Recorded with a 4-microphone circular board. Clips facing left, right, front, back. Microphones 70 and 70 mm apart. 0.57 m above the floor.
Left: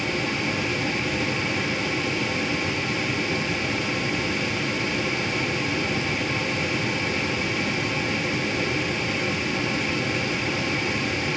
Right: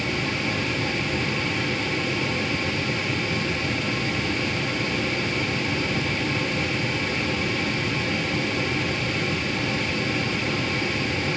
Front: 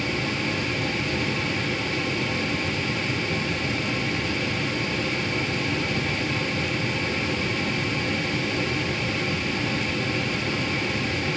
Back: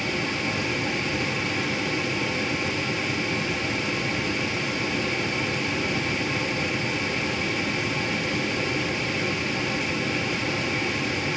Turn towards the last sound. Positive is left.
No sound to turn to.